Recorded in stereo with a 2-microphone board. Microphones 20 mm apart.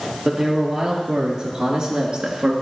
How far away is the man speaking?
About 3.5 m.